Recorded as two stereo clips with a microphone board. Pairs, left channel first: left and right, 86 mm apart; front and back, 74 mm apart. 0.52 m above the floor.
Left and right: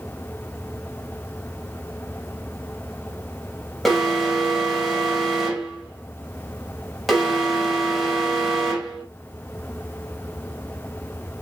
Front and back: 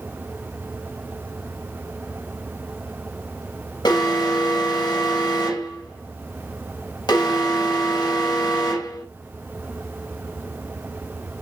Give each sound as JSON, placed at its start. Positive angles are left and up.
{"t": 3.9, "sound": "an alarm", "azimuth_deg": 0, "distance_m": 4.0}